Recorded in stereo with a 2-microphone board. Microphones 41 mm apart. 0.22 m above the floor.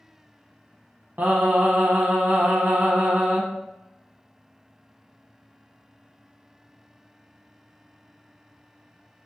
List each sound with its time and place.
1.2 s singing: 50° right (ahead or behind), 0.5 m